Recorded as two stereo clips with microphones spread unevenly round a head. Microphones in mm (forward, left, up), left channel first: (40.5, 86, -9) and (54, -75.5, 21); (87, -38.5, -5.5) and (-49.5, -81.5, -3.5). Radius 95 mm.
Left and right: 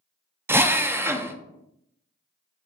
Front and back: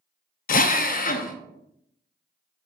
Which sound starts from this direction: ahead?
A drill, at 0.5 s.